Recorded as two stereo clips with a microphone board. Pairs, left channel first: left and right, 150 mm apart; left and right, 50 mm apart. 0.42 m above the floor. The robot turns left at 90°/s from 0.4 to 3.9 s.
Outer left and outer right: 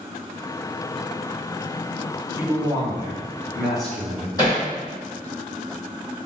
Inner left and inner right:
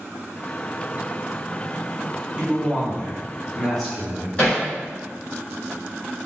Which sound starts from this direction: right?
A man speaking, at 2.4 s.